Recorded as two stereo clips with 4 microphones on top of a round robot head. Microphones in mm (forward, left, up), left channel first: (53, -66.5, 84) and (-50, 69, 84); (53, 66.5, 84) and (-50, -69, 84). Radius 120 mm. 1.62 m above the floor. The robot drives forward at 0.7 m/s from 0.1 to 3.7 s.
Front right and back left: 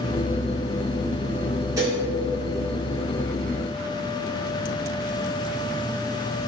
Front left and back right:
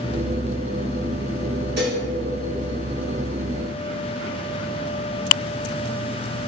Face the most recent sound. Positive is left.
turn(degrees=-165)